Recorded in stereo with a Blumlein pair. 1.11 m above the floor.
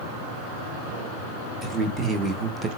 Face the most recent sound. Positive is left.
turn(degrees=-15)